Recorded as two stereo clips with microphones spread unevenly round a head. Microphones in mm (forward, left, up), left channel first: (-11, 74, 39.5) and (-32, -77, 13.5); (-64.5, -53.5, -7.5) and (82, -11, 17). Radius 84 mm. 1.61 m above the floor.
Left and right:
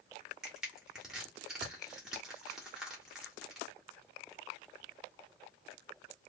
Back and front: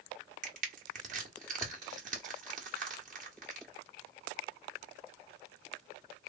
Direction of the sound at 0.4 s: 5° right.